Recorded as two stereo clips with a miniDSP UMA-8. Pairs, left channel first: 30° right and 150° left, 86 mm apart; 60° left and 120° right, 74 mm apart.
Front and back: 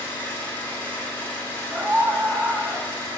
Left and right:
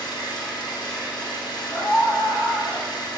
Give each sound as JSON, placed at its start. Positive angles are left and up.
{"t": 0.0, "sound": "an engine running", "azimuth_deg": 35, "distance_m": 3.5}
{"t": 1.7, "sound": "a scream", "azimuth_deg": 90, "distance_m": 1.7}